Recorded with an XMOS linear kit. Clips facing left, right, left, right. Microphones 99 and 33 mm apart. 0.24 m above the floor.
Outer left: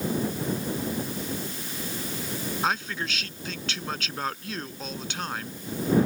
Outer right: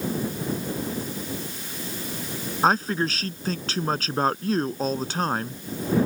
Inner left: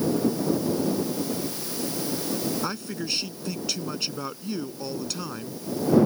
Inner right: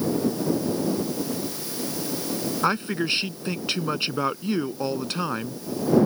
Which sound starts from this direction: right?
A man speaking, at 2.6 s.